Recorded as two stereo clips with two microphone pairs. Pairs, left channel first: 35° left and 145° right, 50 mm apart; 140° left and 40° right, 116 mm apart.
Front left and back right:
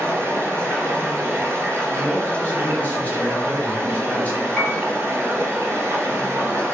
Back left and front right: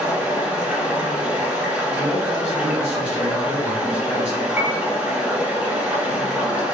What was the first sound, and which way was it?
Running water, 115° right.